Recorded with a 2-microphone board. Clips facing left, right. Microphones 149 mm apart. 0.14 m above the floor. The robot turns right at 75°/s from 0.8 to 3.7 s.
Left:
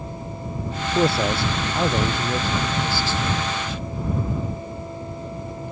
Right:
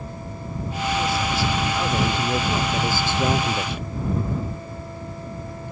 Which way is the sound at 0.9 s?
80° left.